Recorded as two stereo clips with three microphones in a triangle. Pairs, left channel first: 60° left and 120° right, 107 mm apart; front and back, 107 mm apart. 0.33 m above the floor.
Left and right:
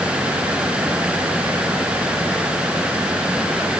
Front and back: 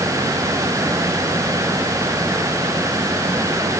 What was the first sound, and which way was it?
Only background noise.